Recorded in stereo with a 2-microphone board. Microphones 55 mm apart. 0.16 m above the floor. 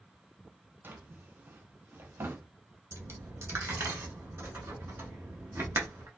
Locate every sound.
0.8 s a drawer: 40° right (ahead or behind), 0.5 m
2.9 s a dropped coin: 55° right (ahead or behind), 0.8 m